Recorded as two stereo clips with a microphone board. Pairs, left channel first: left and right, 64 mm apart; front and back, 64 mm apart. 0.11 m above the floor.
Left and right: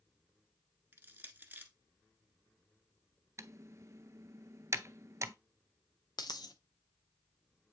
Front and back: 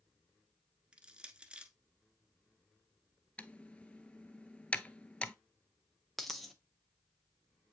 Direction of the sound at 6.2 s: 90° left.